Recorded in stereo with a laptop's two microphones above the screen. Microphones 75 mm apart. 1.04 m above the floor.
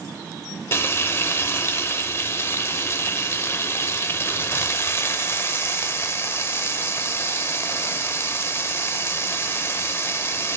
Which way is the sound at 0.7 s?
35° left (ahead or behind).